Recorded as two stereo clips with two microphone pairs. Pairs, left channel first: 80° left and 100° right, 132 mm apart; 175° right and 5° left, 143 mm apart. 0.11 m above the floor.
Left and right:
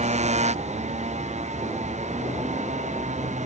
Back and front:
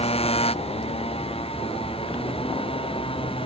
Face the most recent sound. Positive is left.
turn(degrees=-125)